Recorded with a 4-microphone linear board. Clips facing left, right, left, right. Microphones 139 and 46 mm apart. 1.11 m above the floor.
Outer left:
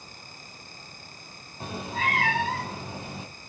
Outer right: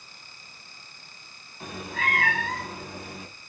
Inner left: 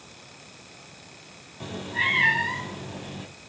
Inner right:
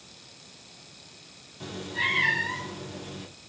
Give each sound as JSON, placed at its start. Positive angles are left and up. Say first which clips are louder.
{"t": 1.6, "sound": "a cat meowing", "louder": "outer left 2 dB, inner left 3 dB", "side_deg": 30, "distance_m": 3.5}